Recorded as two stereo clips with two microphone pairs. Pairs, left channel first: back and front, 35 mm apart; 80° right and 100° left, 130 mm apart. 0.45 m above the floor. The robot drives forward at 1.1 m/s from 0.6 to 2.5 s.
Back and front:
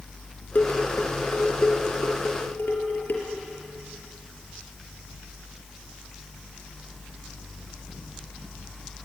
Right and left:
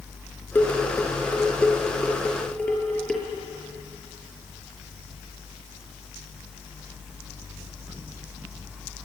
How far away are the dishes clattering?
About 3.5 m.